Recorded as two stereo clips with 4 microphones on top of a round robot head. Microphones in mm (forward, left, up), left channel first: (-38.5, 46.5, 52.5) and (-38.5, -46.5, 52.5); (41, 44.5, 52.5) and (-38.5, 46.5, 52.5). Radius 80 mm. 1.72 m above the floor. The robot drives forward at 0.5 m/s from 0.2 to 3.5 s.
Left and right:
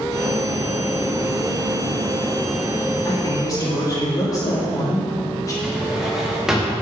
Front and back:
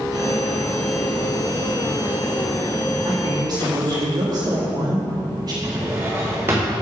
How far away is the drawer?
About 1.0 m.